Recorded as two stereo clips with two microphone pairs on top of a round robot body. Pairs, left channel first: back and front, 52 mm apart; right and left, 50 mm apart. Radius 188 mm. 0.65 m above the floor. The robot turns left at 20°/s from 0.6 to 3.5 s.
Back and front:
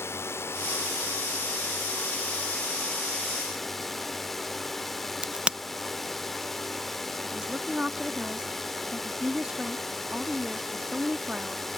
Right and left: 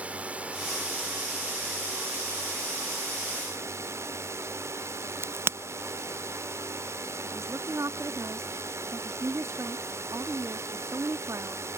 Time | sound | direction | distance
0.0 | a drone | 150° left | ?
5.2 | a crack | 60° left | ?
7.3 | a woman speaking | 70° left | ?